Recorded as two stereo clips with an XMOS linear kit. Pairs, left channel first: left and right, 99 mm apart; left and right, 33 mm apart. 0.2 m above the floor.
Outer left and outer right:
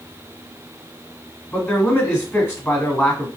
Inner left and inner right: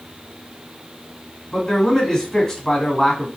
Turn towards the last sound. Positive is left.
turn(degrees=20)  # may be behind; listen again after turning